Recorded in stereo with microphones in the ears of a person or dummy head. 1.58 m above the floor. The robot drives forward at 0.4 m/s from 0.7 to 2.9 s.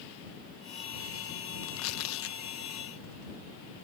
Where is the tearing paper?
85° left; by 3.4 s 80° left.